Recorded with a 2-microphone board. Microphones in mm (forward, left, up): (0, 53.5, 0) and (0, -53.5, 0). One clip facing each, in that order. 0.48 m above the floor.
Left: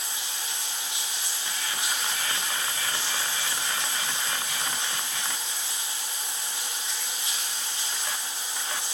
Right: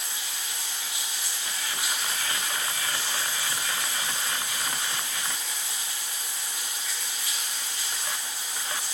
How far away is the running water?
About 2.5 m.